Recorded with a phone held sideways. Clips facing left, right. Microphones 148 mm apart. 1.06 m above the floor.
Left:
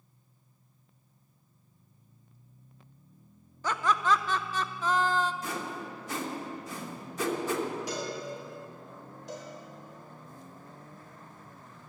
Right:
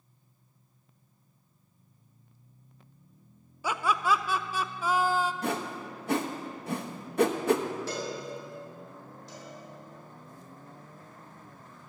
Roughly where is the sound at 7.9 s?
Centre.